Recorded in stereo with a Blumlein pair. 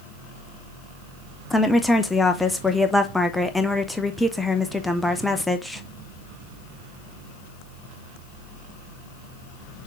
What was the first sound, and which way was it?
A woman speaking, 5° left.